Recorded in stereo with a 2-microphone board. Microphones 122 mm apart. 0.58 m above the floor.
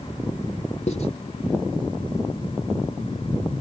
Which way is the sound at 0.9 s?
55° left (ahead or behind).